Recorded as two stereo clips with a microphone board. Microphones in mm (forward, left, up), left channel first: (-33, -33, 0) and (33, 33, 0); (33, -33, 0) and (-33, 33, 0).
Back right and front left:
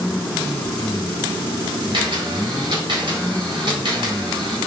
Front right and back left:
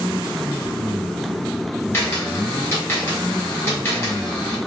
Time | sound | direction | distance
1.9 | a camera shutter | 15° left | 1.7 m